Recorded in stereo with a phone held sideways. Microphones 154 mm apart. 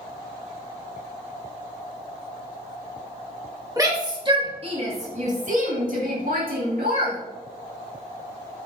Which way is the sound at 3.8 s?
25° right (ahead or behind).